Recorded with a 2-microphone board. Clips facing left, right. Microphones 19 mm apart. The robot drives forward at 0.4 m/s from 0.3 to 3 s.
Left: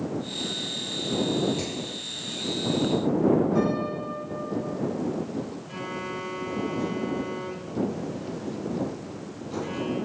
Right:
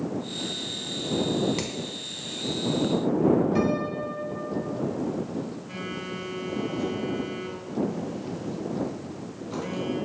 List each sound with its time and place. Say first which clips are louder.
1.6 s hammering: even; 55° right (ahead or behind), 0.7 m; by 1.7 s 50° right (ahead or behind), 0.7 m
3.5 s a piano: even; 50° right (ahead or behind), 0.6 m
5.7 s a phone buzzing: left 1 dB; 30° right (ahead or behind), 1.2 m